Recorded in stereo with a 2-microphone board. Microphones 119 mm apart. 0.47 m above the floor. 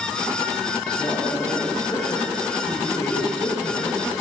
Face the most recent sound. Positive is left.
turn(degrees=30)  # may be behind; listen again after turning